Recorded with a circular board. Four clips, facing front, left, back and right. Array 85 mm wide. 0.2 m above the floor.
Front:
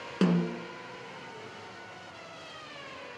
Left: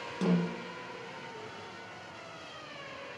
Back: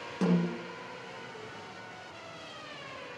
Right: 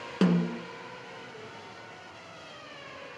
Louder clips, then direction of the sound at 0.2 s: Right 4 dB, front 2 dB; 55° right.